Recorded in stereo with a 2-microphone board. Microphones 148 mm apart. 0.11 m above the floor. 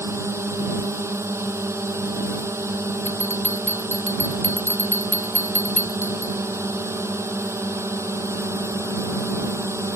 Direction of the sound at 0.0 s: 15° right (ahead or behind).